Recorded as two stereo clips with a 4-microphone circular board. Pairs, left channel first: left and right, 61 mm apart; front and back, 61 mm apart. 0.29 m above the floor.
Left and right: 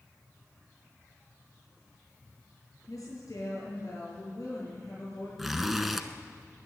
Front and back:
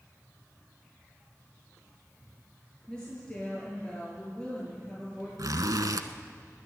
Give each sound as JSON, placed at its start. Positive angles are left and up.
{"t": 2.9, "sound": "a woman speaking", "azimuth_deg": 75, "distance_m": 6.5}
{"t": 5.4, "sound": "a zipper", "azimuth_deg": 180, "distance_m": 0.9}